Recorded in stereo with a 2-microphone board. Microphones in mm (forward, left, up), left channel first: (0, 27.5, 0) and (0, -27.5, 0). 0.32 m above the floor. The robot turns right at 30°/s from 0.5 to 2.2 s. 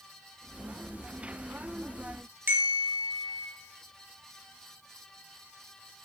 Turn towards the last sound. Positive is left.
turn(degrees=-45)  # may be behind; listen again after turning